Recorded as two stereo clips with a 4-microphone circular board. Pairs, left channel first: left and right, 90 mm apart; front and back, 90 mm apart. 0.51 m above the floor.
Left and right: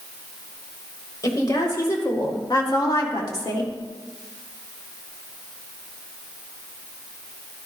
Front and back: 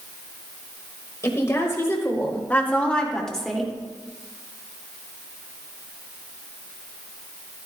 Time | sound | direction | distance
1.2 | a woman speaking | 50° left | 2.5 m